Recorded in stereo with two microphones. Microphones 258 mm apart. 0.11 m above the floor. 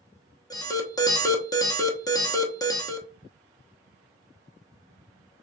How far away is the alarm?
About 0.9 m.